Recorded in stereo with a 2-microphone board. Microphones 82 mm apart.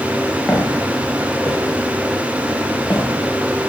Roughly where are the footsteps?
Centre.